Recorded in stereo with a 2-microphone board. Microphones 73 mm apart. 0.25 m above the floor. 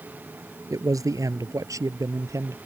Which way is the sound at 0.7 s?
55° right (ahead or behind).